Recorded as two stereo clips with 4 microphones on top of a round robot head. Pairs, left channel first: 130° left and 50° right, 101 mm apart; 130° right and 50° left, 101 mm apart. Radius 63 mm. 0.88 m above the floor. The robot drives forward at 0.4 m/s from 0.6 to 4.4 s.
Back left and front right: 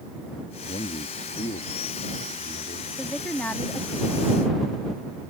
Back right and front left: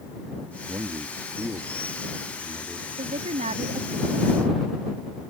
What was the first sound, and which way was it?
A man speaking, 110° left.